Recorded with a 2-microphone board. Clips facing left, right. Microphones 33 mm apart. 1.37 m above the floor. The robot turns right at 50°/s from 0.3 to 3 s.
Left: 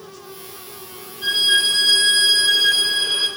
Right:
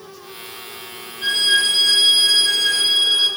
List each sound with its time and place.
1.2 s a violin: 45° right, 4.5 m; by 3.3 s 45° left, 4.5 m